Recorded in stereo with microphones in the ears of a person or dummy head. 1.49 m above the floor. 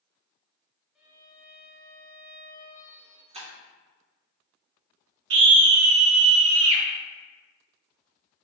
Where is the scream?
70° right (ahead or behind), 0.8 m.